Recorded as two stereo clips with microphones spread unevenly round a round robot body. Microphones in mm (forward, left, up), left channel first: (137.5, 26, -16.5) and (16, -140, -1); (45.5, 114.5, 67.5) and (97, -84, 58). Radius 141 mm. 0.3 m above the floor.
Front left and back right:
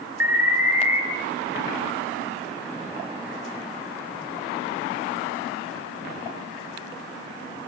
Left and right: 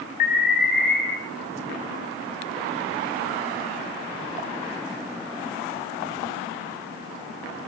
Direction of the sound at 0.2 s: 150° left.